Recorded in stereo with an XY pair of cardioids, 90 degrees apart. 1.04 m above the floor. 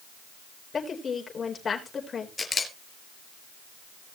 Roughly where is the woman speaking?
Ahead left.